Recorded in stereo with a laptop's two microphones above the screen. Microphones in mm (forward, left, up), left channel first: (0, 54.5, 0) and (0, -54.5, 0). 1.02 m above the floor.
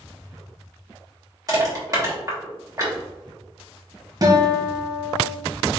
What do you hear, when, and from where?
1.5 s crushing: 35° right (ahead or behind), 1.5 m
4.2 s a guitar: 35° right (ahead or behind), 1.0 m